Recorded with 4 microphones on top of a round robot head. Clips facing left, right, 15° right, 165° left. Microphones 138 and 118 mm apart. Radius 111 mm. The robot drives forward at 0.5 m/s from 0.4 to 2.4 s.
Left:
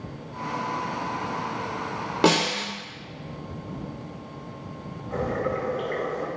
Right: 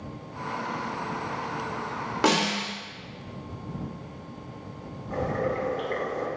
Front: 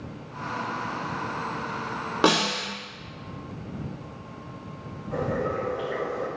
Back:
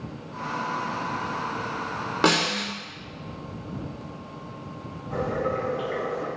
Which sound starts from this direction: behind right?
Boiling, at 5.1 s.